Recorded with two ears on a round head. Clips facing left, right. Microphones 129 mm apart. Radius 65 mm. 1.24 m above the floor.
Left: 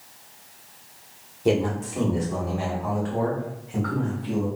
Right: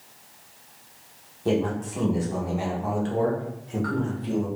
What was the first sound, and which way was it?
A man speaking, 20° left (ahead or behind).